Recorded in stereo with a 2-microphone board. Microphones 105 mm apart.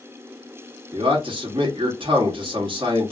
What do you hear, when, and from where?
0.9 s a man speaking: 50° right (ahead or behind), 1.1 m